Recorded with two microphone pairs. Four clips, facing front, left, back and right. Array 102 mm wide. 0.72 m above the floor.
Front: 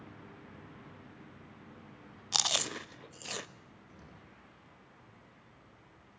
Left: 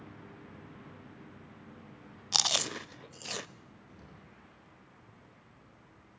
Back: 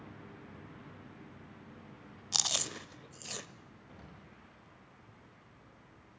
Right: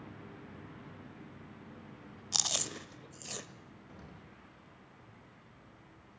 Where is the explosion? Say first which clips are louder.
Right 3 dB, back 2 dB; 135° right, 5 m.